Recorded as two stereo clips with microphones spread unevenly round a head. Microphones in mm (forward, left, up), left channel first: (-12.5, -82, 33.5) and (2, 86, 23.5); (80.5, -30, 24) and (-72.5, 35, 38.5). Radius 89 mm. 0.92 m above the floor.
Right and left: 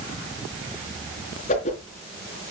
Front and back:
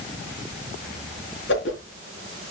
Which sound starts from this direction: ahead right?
A whoosh, at 1.5 s.